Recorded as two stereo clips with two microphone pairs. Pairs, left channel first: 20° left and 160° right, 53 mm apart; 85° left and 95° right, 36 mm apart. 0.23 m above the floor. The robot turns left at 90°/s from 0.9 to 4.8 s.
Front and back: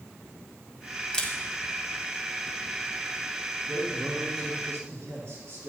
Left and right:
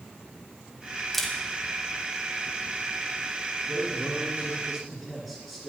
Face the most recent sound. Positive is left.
turn(degrees=180)